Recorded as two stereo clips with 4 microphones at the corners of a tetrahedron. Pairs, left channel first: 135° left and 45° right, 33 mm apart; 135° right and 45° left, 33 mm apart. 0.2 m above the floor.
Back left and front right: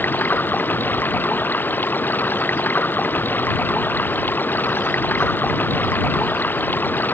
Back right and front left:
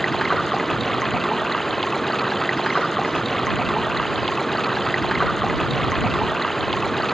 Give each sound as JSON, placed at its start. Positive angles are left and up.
{"t": 0.0, "sound": "running water", "azimuth_deg": 140}